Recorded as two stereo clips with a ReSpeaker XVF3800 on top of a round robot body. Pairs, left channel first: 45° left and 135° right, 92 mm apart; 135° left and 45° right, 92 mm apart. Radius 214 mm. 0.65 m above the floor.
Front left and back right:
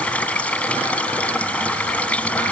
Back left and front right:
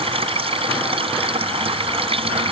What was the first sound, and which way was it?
Running water, 30° right.